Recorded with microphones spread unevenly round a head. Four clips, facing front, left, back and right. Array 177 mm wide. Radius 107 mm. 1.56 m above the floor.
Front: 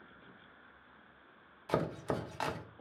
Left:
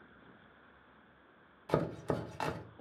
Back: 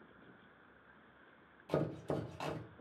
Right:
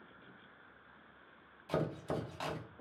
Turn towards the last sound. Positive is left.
turn(degrees=10)